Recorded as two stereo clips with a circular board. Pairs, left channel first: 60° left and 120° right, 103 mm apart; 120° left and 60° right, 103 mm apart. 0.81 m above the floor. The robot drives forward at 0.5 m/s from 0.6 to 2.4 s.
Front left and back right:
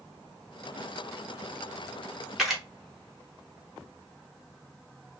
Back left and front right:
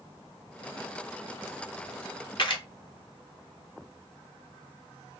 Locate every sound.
2.4 s a camera shutter: 155° left, 0.9 m